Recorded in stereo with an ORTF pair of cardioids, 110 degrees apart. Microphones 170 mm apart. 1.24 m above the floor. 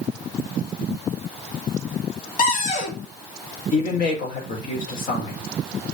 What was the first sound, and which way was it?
A cupboard door, 50° left.